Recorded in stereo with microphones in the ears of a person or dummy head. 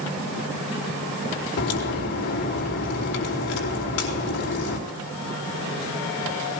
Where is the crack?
60° left (ahead or behind), 3 m.